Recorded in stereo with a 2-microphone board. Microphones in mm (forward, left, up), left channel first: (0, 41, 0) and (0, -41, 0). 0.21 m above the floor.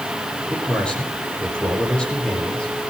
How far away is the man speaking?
About 8.5 m.